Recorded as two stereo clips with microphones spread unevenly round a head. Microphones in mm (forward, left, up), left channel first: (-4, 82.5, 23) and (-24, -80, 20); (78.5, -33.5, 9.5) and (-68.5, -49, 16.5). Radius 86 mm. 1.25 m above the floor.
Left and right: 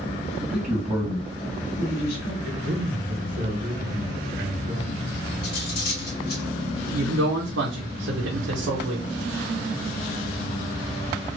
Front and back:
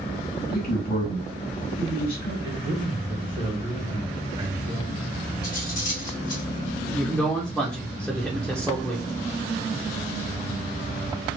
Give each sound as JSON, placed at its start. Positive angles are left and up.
{"t": 0.4, "sound": "a man speaking", "azimuth_deg": -15, "distance_m": 1.6}
{"t": 2.4, "sound": "a man speaking", "azimuth_deg": -120, "distance_m": 1.2}
{"t": 5.4, "sound": "cutlery clinking", "azimuth_deg": 50, "distance_m": 1.4}
{"t": 6.9, "sound": "a man speaking", "azimuth_deg": -80, "distance_m": 0.7}